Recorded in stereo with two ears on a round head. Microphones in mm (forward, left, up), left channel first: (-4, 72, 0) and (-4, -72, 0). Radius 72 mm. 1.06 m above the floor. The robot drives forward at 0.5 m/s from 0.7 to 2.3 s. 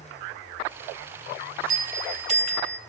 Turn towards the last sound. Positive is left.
turn(degrees=-40)  # may be behind; listen again after turning